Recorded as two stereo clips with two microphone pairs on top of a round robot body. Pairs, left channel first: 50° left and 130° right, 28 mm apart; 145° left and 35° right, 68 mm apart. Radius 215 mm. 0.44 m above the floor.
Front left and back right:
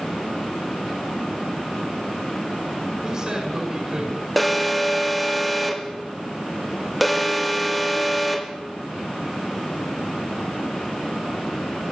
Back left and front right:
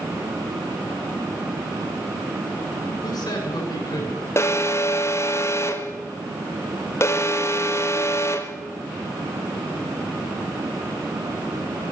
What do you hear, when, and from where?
3.0 s a man speaking: 160° left, 7.5 m
4.4 s an alarm: 140° left, 2 m